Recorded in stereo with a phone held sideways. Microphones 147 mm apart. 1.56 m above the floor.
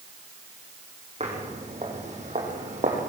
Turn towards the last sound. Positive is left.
turn(degrees=-55)  # may be behind; listen again after turning